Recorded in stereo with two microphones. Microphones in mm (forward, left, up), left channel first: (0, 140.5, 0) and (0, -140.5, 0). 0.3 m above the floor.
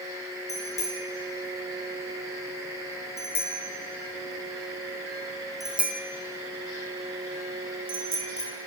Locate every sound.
0.5 s a bicycle bell: 55° left (ahead or behind), 5 m; by 8.5 s 55° right (ahead or behind), 3 m